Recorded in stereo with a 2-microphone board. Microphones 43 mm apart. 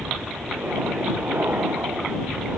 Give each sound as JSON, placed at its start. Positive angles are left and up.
{"t": 0.0, "sound": "an aircraft", "side_deg": -65}